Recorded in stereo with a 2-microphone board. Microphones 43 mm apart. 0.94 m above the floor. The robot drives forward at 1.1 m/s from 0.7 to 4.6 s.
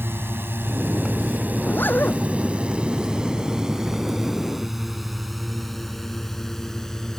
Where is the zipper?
50° left (ahead or behind).